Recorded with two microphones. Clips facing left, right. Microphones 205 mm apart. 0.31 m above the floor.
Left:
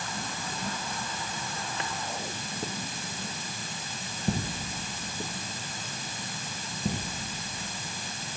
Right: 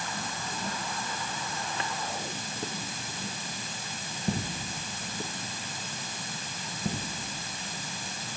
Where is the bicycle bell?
No bicycle bell in this recording.